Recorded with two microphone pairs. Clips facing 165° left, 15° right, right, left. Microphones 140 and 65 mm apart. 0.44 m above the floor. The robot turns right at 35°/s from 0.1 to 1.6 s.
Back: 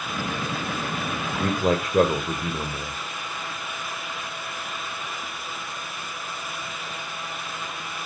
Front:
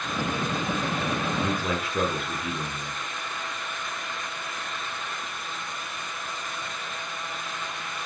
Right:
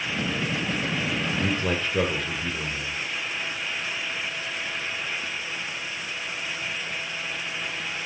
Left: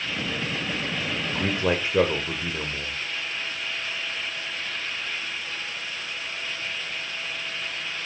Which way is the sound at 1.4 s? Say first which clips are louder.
Back 5 dB, left 4 dB; 135° left.